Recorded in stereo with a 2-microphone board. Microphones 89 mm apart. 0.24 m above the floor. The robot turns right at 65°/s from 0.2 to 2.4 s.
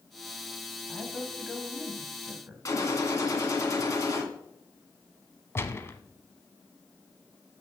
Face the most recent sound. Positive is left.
turn(degrees=30)  # may be behind; listen again after turning